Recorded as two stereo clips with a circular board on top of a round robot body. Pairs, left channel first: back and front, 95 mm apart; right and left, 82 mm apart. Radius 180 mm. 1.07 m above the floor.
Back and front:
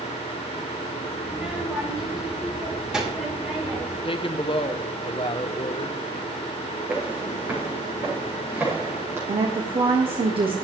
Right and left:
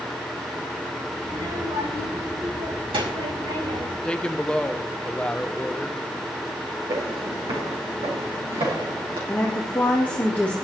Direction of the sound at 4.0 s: 170° right.